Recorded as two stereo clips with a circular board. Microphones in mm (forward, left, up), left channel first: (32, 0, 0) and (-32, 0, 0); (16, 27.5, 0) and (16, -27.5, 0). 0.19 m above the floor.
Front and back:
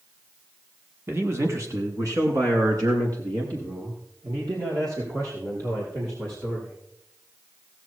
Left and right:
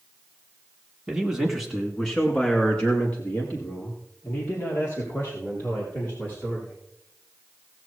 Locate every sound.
1.1 s a man speaking: 160° right, 1.7 m; by 6.7 s 145° left, 6.5 m